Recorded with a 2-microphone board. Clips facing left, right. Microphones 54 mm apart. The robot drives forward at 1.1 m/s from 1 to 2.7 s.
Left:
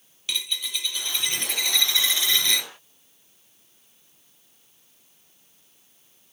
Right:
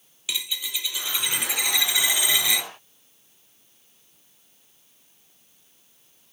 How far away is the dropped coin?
About 1.4 m.